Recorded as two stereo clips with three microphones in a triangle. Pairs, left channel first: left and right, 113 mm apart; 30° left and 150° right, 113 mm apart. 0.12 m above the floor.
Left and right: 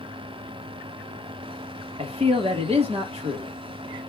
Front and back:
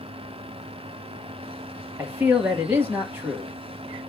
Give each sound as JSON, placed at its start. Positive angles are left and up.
{"t": 2.0, "sound": "a man speaking", "azimuth_deg": -80, "distance_m": 2.5}